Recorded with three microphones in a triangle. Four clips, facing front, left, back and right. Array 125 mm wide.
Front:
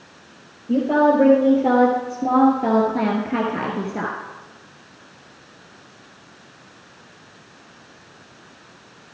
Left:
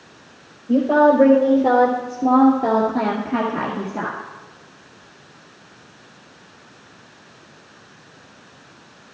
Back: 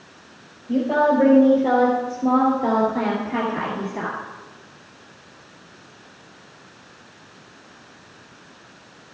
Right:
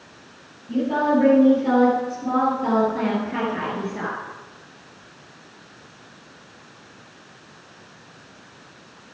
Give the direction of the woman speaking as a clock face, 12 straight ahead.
10 o'clock.